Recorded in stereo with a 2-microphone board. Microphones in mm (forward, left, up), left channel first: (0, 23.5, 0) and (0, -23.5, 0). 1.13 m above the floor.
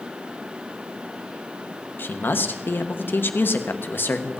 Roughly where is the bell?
I don't hear a bell.